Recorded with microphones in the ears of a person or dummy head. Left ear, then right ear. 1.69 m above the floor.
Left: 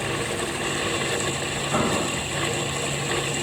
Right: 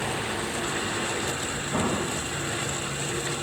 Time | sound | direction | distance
1.7 | an explosion | 40° left (ahead or behind) | 1.9 m